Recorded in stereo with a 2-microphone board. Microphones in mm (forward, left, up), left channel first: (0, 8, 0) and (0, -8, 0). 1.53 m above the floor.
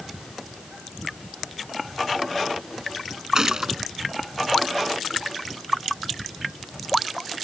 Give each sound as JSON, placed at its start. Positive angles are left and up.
{"t": 3.4, "sound": "a gunshot", "side_deg": -35}